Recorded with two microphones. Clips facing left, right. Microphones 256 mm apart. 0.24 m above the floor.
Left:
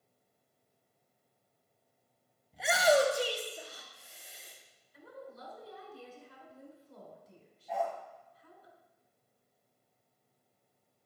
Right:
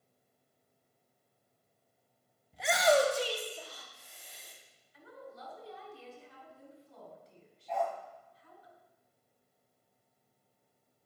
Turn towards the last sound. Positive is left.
turn(degrees=5)  # may be behind; listen again after turning